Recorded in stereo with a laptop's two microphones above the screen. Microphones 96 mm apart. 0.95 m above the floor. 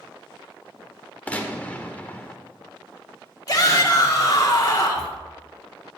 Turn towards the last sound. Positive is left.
turn(degrees=40)  # may be behind; listen again after turning